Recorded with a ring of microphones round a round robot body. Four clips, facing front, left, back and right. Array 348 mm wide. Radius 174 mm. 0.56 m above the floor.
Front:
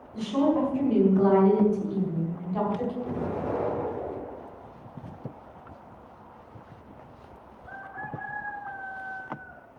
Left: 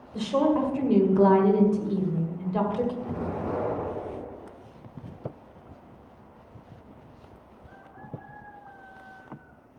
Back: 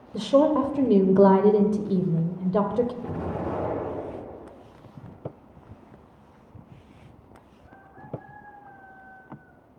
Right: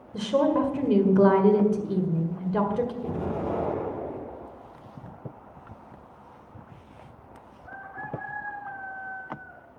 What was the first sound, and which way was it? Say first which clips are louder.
A woman speaking: right 1 dB, back 4 dB; 160° right.